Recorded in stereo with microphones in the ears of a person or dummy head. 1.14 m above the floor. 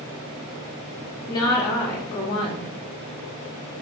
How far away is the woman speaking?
About 0.5 m.